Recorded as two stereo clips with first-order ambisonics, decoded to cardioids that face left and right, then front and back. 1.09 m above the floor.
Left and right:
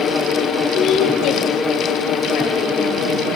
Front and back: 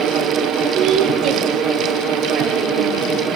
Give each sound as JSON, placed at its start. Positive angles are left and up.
{"t": 0.8, "sound": "a woman speaking", "azimuth_deg": 155, "distance_m": 2.5}